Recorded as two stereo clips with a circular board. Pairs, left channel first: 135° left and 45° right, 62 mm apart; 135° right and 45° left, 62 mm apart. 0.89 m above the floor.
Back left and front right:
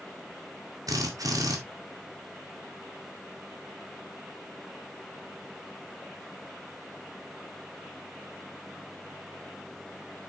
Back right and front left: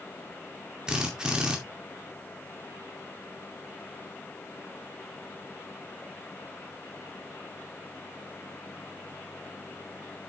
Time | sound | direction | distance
0.9 | a drill | 30° right | 2 m